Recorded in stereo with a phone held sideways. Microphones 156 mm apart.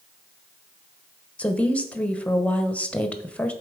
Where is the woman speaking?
10° left (ahead or behind), 0.9 m.